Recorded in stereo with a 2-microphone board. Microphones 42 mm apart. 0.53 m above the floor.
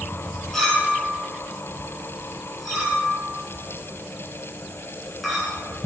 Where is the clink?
5° left (ahead or behind), 3 m.